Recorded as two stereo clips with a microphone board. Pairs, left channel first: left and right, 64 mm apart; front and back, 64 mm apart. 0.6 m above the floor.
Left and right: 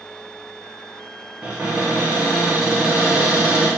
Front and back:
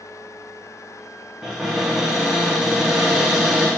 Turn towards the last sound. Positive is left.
turn(degrees=-125)